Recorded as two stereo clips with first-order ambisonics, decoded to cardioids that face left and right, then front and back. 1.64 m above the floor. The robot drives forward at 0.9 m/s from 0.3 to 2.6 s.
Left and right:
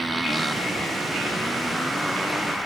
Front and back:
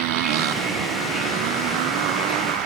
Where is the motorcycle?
170° right; by 2.7 s straight behind.